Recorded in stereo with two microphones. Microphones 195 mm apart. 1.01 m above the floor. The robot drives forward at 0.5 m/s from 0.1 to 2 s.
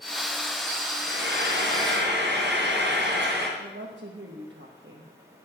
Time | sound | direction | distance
1.0 | frying | 65° right (ahead or behind) | 5 m
3.6 | a woman speaking | 70° right (ahead or behind) | 1.3 m